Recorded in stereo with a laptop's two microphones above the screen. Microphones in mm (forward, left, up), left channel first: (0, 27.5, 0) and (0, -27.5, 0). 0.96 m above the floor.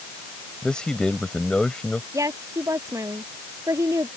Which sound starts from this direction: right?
A woman speaking, at 2.1 s.